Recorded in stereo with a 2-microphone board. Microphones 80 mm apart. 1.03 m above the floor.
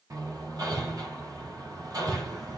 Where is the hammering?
50° right (ahead or behind), 5 m.